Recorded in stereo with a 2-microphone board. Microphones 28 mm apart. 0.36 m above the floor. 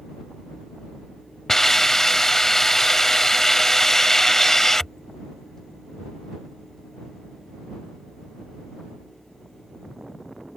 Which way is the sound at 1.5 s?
15° left (ahead or behind).